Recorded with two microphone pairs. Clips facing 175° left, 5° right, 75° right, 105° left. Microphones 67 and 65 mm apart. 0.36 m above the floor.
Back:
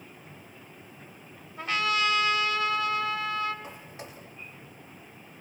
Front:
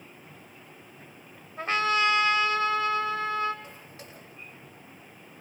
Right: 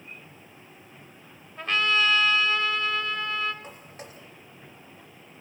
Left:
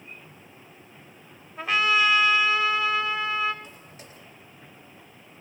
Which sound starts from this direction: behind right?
Footsteps, at 3.6 s.